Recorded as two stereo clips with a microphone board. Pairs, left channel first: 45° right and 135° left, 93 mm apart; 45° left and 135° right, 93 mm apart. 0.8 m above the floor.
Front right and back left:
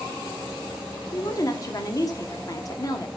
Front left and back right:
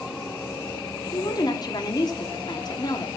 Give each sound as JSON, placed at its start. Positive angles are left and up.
{"t": 1.1, "sound": "a woman speaking", "azimuth_deg": 5, "distance_m": 1.4}